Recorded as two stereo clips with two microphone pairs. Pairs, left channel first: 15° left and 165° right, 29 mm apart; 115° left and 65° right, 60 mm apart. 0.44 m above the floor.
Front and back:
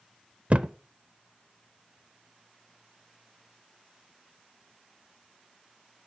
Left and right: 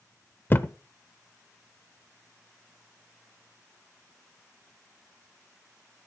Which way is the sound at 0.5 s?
160° left.